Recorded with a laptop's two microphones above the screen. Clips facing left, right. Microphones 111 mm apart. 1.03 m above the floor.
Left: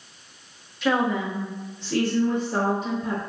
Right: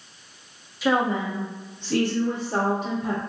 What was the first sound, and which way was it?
A woman speaking, centre (ahead or behind).